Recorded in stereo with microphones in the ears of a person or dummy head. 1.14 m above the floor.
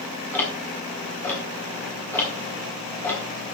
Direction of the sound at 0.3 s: 10° left (ahead or behind).